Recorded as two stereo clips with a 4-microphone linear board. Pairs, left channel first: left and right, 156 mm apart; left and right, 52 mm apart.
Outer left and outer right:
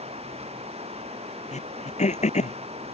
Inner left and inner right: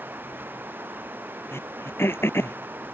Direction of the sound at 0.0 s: 40° right (ahead or behind).